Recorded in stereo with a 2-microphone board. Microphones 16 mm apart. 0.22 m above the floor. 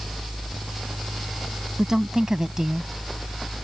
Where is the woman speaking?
45° right (ahead or behind); by 2.9 s 30° right (ahead or behind).